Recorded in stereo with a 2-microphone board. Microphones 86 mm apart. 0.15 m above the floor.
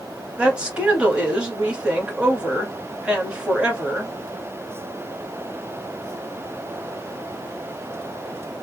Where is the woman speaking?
10° right (ahead or behind), 1.7 m.